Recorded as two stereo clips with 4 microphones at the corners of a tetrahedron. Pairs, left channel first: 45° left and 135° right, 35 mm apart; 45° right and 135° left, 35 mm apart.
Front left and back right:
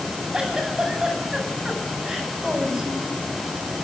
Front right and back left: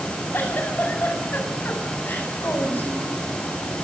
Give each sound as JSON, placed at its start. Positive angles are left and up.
{"t": 0.3, "sound": "a giggle", "azimuth_deg": -65, "distance_m": 8.5}